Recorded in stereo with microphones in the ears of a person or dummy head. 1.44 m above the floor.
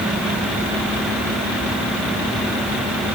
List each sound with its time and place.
Only background noise.